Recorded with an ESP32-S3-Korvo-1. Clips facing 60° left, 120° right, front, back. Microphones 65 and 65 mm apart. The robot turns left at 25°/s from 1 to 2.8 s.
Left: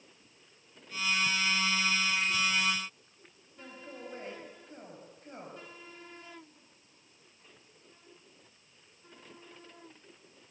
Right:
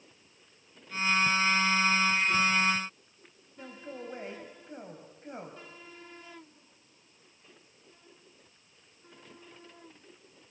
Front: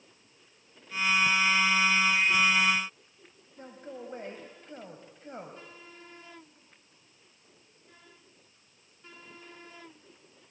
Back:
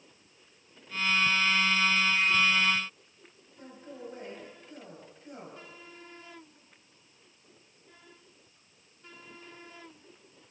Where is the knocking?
I don't hear knocking.